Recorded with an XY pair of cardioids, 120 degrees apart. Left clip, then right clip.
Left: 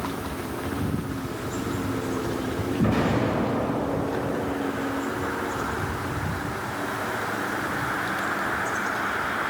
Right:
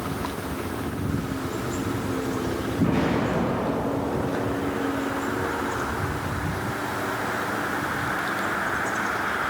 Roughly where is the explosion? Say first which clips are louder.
Even; ahead left.